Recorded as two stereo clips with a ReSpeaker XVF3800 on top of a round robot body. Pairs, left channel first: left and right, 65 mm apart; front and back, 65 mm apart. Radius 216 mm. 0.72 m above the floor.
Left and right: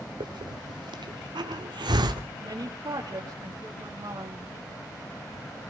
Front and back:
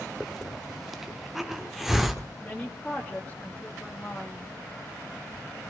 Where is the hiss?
95° right, 1.0 m.